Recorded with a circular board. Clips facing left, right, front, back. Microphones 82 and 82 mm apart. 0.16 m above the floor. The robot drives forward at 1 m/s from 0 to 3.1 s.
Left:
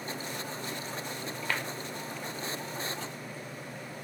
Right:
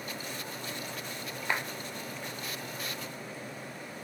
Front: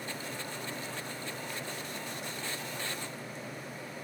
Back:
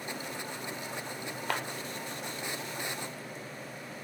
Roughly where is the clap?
Behind.